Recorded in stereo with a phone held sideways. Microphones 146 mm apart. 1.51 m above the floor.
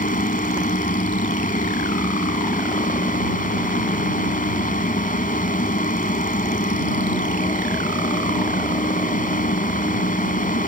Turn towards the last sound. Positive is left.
turn(degrees=70)  # may be behind; listen again after turning